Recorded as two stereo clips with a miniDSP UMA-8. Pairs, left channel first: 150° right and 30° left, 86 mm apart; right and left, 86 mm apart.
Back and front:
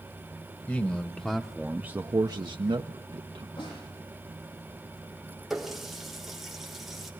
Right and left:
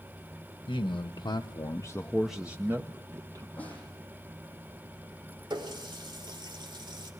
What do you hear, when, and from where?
0.7 s a man speaking: 85° right, 1.3 m; by 3.5 s 45° left, 1.3 m
3.6 s a snare drum: 160° right, 9.5 m
5.5 s a running tap: 120° left, 2 m